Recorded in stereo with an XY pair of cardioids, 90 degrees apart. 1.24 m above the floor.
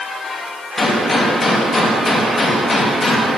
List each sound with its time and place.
0.8 s a gunshot: 35° left, 2 m